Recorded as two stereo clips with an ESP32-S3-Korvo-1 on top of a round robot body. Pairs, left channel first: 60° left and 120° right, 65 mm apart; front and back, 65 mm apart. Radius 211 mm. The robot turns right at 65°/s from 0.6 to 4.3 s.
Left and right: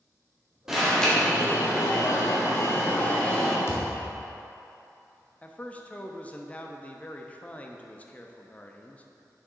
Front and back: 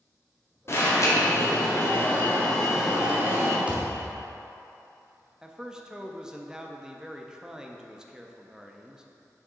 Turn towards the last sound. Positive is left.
turn(degrees=110)